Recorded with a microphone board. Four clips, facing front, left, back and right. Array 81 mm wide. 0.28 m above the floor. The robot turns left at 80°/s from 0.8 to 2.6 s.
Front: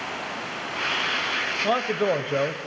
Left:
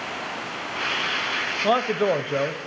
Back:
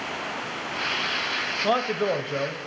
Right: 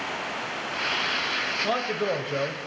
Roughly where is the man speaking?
Left.